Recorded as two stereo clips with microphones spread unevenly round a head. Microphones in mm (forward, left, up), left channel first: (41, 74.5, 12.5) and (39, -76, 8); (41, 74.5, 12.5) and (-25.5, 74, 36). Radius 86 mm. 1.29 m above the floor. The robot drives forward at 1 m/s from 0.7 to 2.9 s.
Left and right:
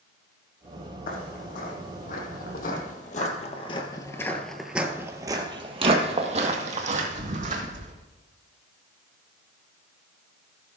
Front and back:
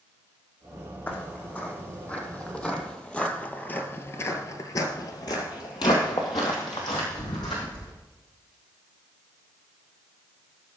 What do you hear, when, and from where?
1.1 s footsteps: 70° left, 3.5 m; by 7.9 s 60° right, 3.5 m